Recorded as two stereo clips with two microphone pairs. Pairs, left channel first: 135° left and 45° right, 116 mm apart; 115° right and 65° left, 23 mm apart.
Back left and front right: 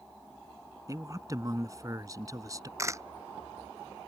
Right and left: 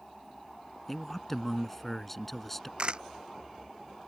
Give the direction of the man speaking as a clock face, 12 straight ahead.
2 o'clock.